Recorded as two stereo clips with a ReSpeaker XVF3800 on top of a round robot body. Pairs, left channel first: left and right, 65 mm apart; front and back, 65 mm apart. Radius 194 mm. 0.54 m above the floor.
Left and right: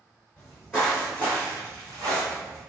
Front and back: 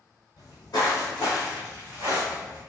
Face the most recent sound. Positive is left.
turn(degrees=-130)